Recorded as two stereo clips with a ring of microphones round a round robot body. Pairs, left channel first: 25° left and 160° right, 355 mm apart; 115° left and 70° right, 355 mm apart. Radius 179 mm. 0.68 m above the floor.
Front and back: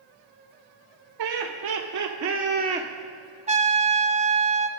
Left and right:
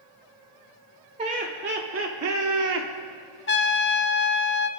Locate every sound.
1.2 s laughter: 140° right, 2.5 m; by 2.9 s 80° right, 1.8 m
3.5 s a trumpet: 145° left, 0.5 m